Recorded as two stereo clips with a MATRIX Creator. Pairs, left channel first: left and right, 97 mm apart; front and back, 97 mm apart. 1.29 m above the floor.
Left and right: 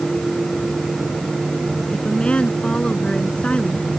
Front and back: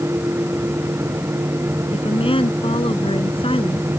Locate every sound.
1.9 s a woman speaking: 10° left